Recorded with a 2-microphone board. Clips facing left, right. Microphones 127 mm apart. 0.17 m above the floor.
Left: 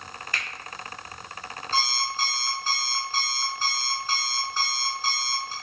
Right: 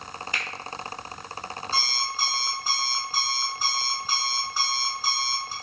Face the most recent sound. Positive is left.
turn(degrees=-10)  # may be behind; listen again after turning